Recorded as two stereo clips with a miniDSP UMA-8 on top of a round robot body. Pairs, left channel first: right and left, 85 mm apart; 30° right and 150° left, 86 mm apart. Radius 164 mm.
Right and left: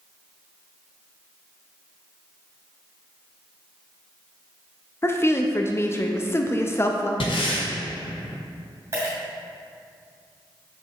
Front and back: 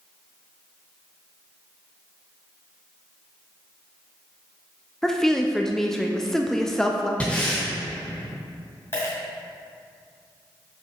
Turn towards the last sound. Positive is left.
turn(degrees=30)